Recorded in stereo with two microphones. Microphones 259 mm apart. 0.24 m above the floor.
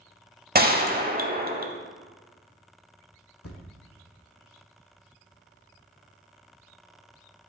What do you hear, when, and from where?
0.6 s a gunshot: 40° right (ahead or behind), 0.6 m
3.4 s a thud: 75° left (ahead or behind), 1.2 m